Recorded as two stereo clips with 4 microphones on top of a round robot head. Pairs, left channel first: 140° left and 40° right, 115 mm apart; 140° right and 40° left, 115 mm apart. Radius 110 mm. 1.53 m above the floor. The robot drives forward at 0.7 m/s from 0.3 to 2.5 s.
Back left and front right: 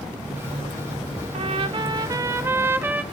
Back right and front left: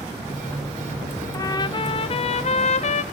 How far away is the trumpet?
About 1.4 m.